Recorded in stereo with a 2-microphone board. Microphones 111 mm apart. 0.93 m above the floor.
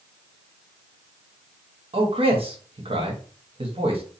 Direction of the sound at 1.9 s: 55° right (ahead or behind).